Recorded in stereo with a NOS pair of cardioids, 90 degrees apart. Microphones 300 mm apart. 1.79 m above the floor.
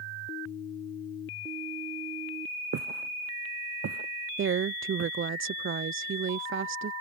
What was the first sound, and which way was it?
Footsteps, 60° right.